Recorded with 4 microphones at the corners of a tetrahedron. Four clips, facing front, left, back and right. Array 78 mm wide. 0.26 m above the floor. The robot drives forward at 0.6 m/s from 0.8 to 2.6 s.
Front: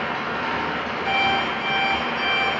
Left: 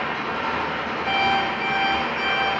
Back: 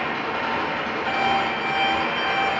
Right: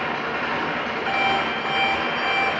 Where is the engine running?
80° right, 1.2 m; by 2.6 s 130° right, 1.5 m.